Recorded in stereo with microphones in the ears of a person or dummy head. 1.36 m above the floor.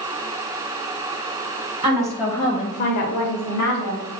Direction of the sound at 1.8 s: 25° right (ahead or behind).